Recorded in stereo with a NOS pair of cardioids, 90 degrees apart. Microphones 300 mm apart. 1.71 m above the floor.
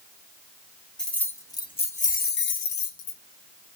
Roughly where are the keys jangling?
Ahead.